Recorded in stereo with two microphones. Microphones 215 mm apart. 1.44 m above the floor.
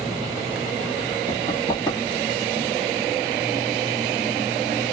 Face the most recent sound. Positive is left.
turn(degrees=20)  # may be behind; listen again after turning